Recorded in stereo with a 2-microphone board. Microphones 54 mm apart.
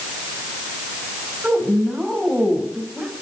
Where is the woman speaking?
5° right (ahead or behind), 3 m.